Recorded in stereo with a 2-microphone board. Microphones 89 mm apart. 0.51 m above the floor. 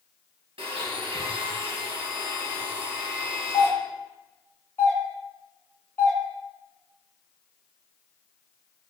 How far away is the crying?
No crying in this recording.